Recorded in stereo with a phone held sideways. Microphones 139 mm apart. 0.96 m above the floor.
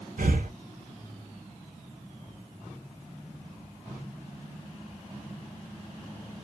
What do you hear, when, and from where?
0.2 s breathing: 80° right, 0.7 m